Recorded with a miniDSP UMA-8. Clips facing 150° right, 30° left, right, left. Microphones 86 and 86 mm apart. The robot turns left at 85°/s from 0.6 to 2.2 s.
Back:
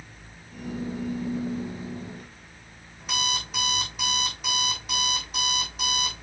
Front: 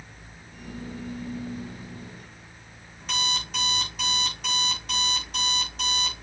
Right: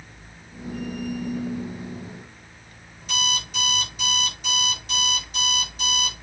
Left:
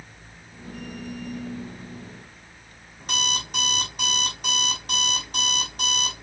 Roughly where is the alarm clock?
Behind left.